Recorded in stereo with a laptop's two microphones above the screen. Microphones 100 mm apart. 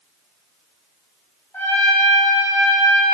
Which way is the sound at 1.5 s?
20° left (ahead or behind).